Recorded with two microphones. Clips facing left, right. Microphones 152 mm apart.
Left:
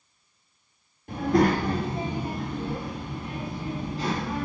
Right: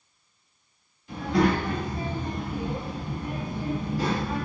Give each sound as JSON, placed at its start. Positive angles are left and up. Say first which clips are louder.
{"t": 1.1, "sound": "a child speaking", "louder": "left 2 dB", "side_deg": 50, "distance_m": 0.8}